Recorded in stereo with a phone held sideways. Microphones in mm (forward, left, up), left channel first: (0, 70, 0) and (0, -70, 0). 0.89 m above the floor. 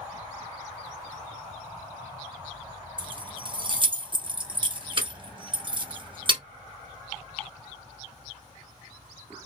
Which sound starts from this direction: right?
Keys jangling, at 3.0 s.